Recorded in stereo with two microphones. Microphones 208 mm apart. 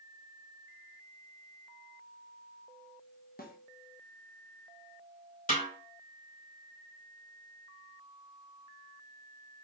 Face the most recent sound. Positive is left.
turn(degrees=40)  # may be behind; listen again after turning